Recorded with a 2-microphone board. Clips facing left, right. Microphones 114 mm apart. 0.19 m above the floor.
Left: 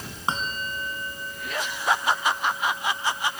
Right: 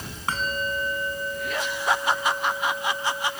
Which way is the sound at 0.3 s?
25° left (ahead or behind).